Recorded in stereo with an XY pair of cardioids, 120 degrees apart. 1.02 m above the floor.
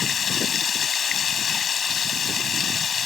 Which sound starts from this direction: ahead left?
Running water, at 0.0 s.